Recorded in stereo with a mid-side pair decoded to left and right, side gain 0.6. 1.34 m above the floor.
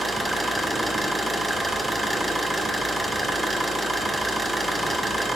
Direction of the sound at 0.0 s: 5° right.